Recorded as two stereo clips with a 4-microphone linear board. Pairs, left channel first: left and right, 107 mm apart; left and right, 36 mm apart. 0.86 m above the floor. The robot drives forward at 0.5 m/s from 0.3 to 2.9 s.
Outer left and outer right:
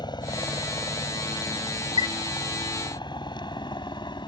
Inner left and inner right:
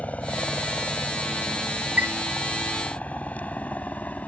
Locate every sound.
0.0 s a helicopter: 40° left (ahead or behind); by 4.3 s 45° left (ahead or behind)
2.0 s a chime: 50° right (ahead or behind)